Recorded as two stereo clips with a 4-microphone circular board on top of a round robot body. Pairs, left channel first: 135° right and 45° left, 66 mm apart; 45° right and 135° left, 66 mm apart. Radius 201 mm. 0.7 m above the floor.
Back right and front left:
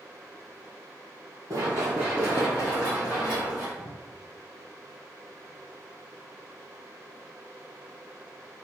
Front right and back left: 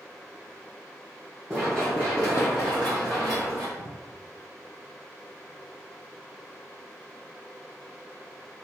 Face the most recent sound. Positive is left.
turn(degrees=-85)